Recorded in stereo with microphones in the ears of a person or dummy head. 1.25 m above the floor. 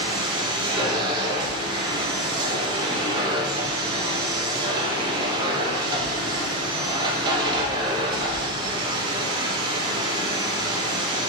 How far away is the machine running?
About 1.4 m.